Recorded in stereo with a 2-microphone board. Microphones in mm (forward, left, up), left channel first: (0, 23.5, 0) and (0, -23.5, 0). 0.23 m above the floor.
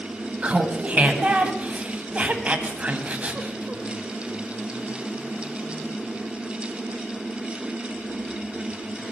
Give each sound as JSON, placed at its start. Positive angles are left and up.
{"t": 0.4, "sound": "laughter", "side_deg": -30, "distance_m": 1.8}